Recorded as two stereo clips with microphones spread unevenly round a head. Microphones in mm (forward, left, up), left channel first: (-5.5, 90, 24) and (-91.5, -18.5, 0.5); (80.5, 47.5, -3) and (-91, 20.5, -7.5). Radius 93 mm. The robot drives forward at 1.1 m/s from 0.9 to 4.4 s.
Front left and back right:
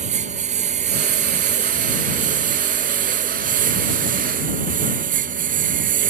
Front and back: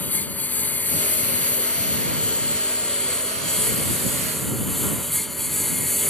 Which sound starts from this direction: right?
A lawn mower, at 0.0 s.